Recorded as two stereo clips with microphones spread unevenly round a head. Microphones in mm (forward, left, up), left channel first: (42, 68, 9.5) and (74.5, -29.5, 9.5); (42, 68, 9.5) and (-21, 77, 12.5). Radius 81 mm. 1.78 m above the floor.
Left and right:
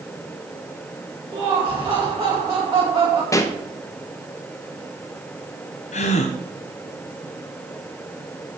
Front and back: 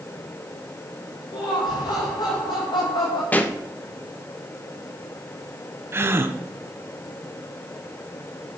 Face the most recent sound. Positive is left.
turn(degrees=125)